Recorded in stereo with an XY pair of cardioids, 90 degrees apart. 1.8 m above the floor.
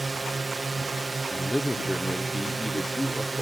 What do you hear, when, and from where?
0.0 s a drone: 30° right
1.3 s a man speaking: straight ahead